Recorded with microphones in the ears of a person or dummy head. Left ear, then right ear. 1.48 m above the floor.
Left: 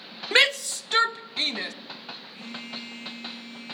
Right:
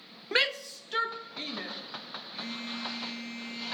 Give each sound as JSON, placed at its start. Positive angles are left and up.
{"t": 0.3, "sound": "a shout", "side_deg": 20, "distance_m": 0.7}
{"t": 2.3, "sound": "a phone buzzing", "side_deg": -30, "distance_m": 7.0}